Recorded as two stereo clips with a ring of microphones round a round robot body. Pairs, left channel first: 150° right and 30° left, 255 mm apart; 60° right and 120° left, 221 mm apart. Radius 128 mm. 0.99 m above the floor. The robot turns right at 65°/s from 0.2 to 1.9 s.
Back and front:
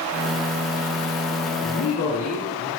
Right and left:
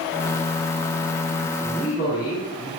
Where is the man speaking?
155° right, 2.5 m; by 2.7 s 135° right, 2.5 m.